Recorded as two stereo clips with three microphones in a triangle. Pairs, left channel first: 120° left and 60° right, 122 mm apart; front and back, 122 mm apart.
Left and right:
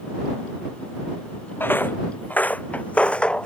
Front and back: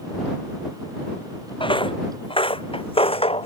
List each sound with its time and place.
1.6 s footsteps: 45° left; by 3.5 s 40° left